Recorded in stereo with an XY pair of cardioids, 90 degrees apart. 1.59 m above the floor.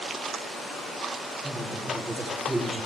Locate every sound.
1.4 s a woman speaking: 5° right, 4 m